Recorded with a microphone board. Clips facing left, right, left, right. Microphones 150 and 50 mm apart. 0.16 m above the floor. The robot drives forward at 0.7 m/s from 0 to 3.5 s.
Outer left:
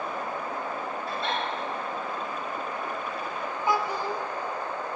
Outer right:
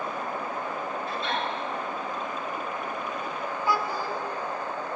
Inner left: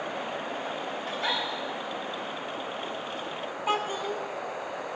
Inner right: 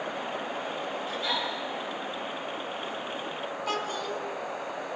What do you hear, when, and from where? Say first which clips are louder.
1.1 s a giggle: outer left 2 dB, inner left 2 dB; 70° left (ahead or behind), 9 m; by 1.4 s 65° left (ahead or behind), 9 m
3.7 s a child speaking: outer left 2 dB, inner left 4 dB; 20° left (ahead or behind), 1.1 m